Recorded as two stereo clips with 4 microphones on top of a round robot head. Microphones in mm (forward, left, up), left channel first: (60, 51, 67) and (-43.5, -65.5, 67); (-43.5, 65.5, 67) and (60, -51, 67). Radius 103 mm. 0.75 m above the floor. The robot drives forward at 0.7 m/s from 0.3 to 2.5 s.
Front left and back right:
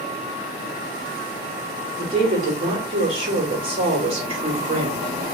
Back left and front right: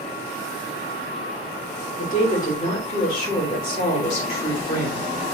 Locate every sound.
2.0 s a woman speaking: 170° left, 3 m